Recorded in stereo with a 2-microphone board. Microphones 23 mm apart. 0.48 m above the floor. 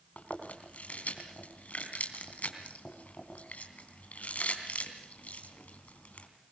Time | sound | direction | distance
0.2 | chewing | 75° left (ahead or behind) | 3.5 m